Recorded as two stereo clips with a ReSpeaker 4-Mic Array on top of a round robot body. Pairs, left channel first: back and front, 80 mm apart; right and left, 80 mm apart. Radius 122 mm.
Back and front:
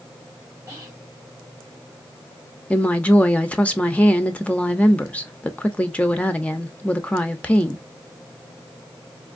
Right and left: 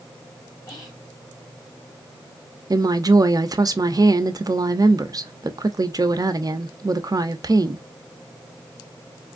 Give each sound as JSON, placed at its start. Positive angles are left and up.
{"t": 0.7, "sound": "whispering", "azimuth_deg": -55, "distance_m": 2.5}
{"t": 2.7, "sound": "a woman speaking", "azimuth_deg": 110, "distance_m": 0.8}